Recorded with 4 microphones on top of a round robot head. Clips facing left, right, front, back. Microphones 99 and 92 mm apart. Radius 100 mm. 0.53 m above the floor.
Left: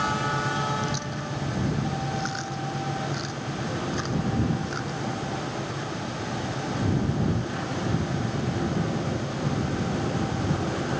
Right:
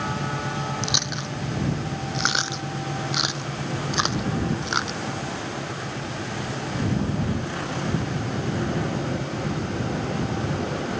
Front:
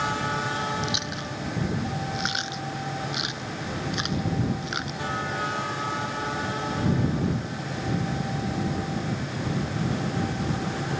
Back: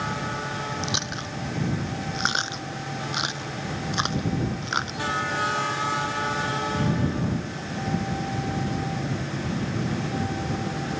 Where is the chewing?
120° right.